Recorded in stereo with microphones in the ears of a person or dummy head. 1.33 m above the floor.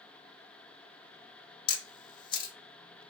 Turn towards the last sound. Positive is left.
turn(degrees=25)  # may be behind; listen again after turning